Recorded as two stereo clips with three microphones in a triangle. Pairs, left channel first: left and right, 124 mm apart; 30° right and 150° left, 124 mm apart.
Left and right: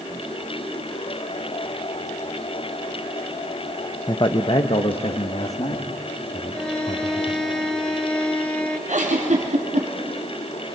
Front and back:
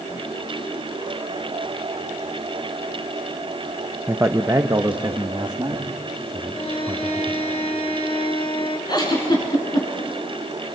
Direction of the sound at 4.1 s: 90° left.